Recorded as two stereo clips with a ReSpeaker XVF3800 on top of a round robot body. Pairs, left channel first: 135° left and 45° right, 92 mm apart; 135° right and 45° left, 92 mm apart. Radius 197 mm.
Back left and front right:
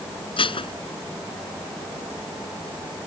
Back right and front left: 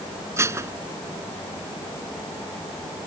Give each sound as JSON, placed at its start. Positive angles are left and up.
{"t": 0.4, "sound": "dishes clattering", "azimuth_deg": 105}